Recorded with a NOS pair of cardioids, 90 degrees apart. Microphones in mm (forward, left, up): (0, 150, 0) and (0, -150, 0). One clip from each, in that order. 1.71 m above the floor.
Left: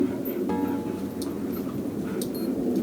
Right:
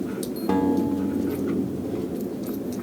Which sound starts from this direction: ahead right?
A guitar, at 0.5 s.